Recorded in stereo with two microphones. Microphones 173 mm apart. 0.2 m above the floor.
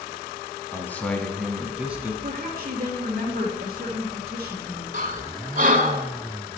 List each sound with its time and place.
0.7 s a man speaking: 15° left (ahead or behind), 1.2 m; by 2.1 s 10° right (ahead or behind), 1.5 m
2.2 s a woman speaking: 45° right (ahead or behind), 2 m
4.9 s breathing: 55° right (ahead or behind), 0.7 m